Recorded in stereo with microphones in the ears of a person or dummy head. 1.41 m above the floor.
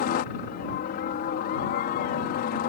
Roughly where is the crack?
I don't hear a crack.